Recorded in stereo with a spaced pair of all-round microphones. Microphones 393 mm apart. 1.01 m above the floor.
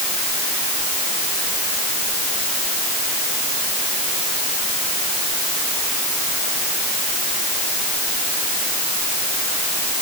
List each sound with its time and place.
Only background noise.